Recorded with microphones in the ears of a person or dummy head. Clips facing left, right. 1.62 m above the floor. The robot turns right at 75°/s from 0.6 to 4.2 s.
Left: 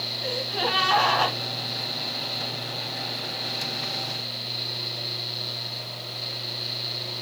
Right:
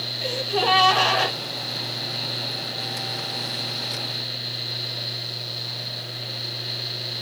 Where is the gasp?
80° right, 3.5 m; by 1.4 s 20° right, 3.5 m.